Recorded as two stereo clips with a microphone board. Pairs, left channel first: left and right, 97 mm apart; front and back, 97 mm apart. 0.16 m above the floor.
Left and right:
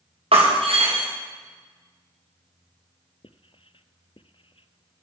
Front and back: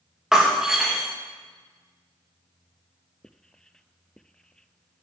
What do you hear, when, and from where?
0.3 s breaking glass: 95° right, 3.5 m
3.2 s writing: 85° left, 0.5 m